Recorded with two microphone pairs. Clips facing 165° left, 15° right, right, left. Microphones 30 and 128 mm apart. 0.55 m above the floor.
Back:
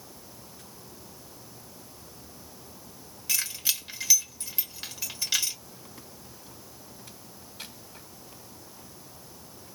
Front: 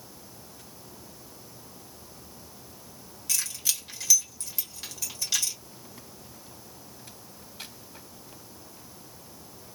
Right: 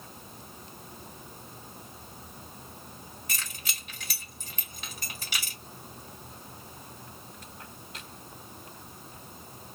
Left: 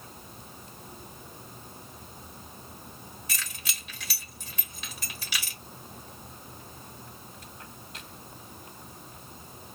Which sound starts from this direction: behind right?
Keys jangling, at 3.3 s.